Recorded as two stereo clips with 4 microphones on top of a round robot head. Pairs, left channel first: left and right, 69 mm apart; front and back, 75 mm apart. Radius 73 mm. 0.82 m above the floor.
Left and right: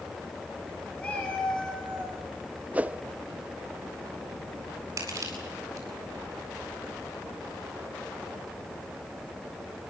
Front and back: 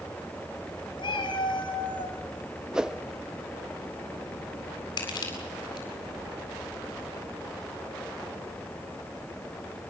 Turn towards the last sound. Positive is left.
turn(degrees=-40)